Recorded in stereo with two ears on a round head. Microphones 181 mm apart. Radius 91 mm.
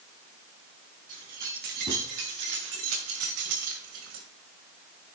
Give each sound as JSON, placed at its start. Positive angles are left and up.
{"t": 1.1, "sound": "keys jangling", "side_deg": -40, "distance_m": 5.0}